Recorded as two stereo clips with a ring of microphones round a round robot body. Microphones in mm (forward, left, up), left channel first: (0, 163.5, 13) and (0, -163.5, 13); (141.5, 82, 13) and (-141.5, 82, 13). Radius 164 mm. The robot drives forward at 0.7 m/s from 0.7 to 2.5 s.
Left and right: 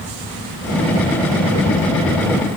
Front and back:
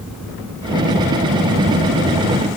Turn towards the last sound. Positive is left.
No sound to turn to.